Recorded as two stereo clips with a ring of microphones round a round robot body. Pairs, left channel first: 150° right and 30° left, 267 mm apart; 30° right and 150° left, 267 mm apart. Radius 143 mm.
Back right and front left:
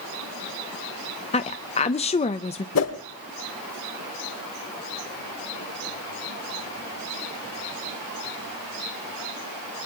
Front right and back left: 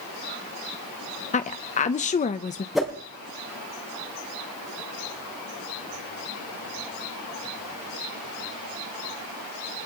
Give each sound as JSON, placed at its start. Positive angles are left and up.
{"t": 1.3, "sound": "a woman speaking", "azimuth_deg": -90, "distance_m": 0.6}
{"t": 2.8, "sound": "a whoosh", "azimuth_deg": -120, "distance_m": 3.0}